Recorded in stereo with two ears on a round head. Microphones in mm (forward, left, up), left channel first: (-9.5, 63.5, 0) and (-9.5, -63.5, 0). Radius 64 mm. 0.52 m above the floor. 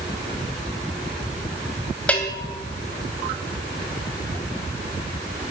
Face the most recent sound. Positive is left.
turn(degrees=10)  # may be behind; listen again after turning